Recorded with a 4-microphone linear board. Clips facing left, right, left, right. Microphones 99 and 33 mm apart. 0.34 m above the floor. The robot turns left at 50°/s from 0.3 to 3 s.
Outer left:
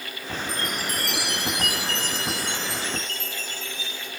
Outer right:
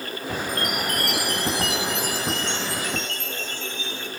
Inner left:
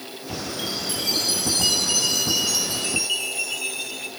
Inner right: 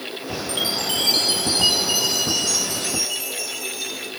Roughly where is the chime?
Right.